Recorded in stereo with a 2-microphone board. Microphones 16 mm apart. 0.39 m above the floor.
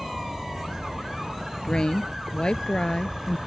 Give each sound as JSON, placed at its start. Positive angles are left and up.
{"t": 0.0, "sound": "an insect", "side_deg": -65}
{"t": 1.6, "sound": "a woman speaking", "side_deg": 75}